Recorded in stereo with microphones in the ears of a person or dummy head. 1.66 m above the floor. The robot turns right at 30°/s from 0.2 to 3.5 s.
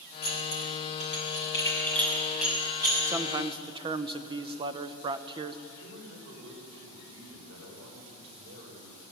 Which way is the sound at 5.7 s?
85° right.